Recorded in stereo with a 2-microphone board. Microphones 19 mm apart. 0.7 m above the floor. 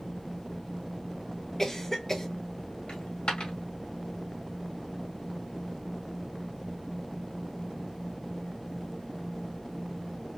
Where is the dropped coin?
70° left (ahead or behind), 1.8 m.